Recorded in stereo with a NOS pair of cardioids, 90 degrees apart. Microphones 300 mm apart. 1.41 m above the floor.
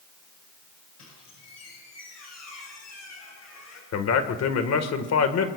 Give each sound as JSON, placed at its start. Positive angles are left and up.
{"t": 1.0, "sound": "a squeak", "azimuth_deg": 55, "distance_m": 8.5}
{"t": 3.9, "sound": "a man speaking", "azimuth_deg": 55, "distance_m": 1.8}